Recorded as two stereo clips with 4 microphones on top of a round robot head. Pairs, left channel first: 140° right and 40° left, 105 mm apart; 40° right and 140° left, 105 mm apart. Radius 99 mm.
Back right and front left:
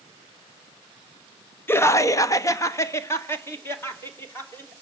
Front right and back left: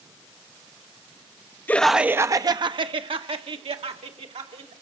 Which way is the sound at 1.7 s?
95° right.